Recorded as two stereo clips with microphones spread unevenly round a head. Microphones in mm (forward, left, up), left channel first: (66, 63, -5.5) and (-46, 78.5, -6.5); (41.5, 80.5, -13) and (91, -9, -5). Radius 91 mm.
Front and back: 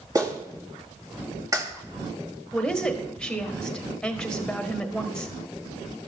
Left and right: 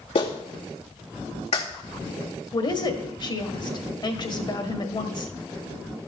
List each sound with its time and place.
0.1 s a clap: 115° left, 2.5 m
2.5 s a woman speaking: 75° left, 1.6 m